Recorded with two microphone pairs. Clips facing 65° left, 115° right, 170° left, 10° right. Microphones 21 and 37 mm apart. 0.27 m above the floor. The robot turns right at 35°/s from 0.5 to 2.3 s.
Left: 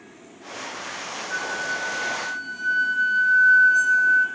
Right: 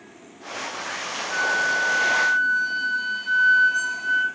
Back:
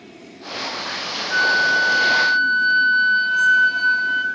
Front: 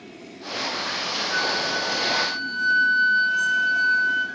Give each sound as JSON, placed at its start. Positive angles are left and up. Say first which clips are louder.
{"t": 1.3, "sound": "a flute", "louder": "right 6 dB, back 10 dB", "azimuth_deg": -175, "distance_m": 1.3}